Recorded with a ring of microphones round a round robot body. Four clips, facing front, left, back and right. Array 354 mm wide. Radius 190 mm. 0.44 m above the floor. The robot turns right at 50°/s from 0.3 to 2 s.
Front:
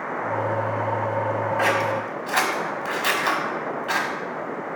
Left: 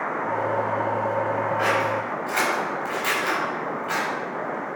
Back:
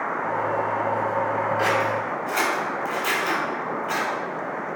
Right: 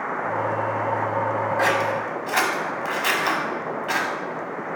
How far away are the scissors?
About 1.1 m.